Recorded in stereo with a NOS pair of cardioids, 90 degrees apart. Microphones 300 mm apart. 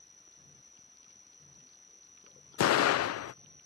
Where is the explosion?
55° left.